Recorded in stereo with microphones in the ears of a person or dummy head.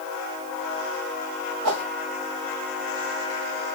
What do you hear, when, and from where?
1.6 s a whoosh: 80° right, 2.5 m